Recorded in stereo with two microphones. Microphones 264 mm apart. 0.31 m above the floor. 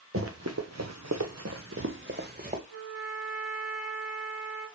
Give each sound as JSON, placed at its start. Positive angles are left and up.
{"t": 0.1, "sound": "running footsteps", "side_deg": -55, "distance_m": 1.6}
{"t": 2.7, "sound": "a trumpet", "side_deg": -55, "distance_m": 4.5}